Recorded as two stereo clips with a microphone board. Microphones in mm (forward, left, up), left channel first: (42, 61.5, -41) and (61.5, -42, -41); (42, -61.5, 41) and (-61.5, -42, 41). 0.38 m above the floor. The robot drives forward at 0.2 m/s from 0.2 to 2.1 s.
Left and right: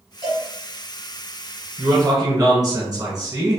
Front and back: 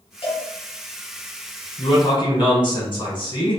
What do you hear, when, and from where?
0.2 s a cowbell: 30° right, 1.7 m; by 0.5 s 35° right, 1.6 m
1.8 s a man speaking: 35° right, 1.3 m; by 3.6 s 40° right, 1.2 m